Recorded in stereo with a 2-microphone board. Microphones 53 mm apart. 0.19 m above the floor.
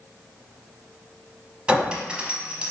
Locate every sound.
1.7 s a clink: 20° right (ahead or behind), 0.6 m